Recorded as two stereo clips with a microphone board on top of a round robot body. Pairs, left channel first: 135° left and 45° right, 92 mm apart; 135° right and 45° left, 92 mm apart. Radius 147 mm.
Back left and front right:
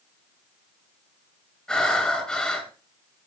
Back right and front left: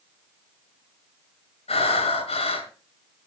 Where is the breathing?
140° right, 4 m.